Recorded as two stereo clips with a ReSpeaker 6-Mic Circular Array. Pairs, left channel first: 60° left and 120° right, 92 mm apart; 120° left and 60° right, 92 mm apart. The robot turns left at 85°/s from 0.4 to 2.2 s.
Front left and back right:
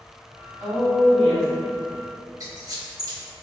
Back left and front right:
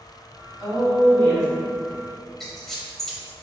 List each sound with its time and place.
0.6 s a woman speaking: 155° right, 1.3 m; by 1.5 s 130° left, 1.3 m
2.4 s a squeak: 155° right, 0.6 m